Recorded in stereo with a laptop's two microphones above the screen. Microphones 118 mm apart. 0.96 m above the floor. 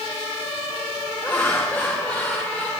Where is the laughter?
15° left (ahead or behind), 1.2 m.